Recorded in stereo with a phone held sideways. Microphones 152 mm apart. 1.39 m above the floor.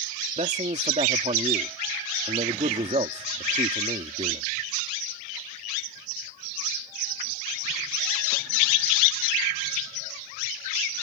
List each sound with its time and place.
0.4 s a man speaking: 50° right (ahead or behind)